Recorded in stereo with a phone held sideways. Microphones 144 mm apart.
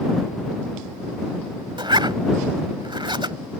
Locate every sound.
1.8 s a zipper: 35° right (ahead or behind)